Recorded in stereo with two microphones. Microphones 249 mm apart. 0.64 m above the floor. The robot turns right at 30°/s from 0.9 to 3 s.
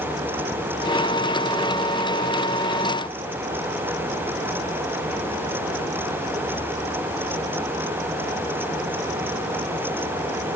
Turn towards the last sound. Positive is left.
No sound to turn to.